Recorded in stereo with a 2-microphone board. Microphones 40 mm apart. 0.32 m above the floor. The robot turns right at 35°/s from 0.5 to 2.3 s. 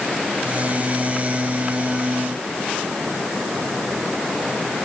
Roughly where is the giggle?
No giggle in this recording.